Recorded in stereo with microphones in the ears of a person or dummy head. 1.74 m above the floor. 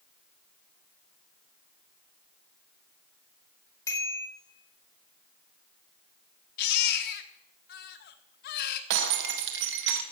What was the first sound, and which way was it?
A bicycle bell, 20° left (ahead or behind).